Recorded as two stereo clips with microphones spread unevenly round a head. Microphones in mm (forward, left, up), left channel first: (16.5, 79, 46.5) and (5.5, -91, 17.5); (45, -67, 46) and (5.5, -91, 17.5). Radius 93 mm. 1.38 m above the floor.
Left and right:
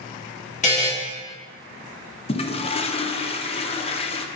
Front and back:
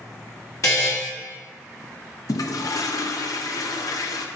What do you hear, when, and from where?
0.6 s a buzzer: 40° left, 2.5 m
2.3 s a toilet flushing: 25° left, 0.7 m